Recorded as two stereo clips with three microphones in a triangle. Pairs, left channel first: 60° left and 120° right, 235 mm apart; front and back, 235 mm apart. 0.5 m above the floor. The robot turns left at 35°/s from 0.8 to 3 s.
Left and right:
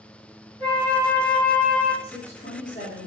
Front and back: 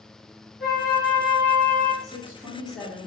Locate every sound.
0.6 s a flute: 90° right, 1.5 m; by 1.9 s 130° right, 1.5 m
2.0 s a woman speaking: 110° left, 1.2 m; by 3.1 s 75° left, 1.2 m